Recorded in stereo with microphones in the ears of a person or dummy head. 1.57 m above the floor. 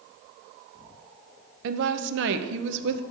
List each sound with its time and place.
1.6 s a woman speaking: 70° right (ahead or behind), 0.7 m